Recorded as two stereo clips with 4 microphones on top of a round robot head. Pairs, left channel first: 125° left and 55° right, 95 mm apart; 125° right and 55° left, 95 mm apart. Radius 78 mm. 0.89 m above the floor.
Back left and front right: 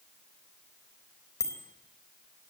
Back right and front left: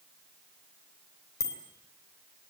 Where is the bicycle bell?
Straight behind, 3.5 m.